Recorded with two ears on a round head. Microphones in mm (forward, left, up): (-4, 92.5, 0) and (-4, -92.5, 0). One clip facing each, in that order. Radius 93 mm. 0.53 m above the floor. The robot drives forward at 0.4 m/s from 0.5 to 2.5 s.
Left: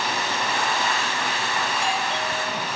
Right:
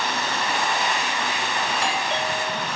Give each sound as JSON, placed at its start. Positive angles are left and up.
{"t": 1.7, "sound": "a doorbell", "side_deg": -60, "distance_m": 2.5}